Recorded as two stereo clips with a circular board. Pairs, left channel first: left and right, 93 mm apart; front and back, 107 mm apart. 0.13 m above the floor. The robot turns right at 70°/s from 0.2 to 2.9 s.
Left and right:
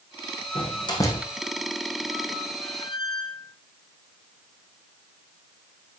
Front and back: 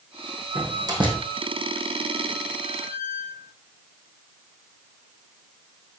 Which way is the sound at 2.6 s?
35° left.